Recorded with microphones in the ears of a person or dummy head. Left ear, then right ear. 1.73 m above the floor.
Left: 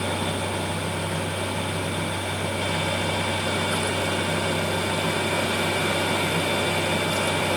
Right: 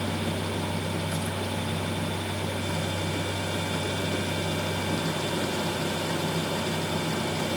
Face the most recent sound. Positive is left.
No sound to turn to.